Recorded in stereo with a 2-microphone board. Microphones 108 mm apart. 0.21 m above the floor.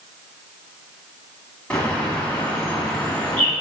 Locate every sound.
1.7 s a bird: 10° left (ahead or behind), 2.0 m